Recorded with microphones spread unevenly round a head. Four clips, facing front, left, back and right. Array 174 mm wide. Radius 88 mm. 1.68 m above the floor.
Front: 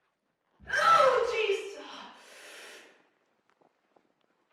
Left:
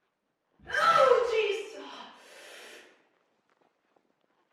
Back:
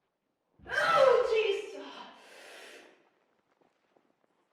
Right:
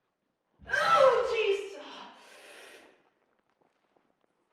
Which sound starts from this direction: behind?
A shout, at 0.6 s.